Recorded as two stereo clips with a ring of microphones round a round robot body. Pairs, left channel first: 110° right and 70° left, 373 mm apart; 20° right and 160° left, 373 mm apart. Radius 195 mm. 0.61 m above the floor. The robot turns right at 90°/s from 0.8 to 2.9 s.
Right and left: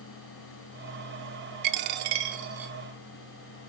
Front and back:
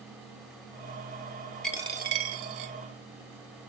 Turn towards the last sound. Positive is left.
turn(degrees=180)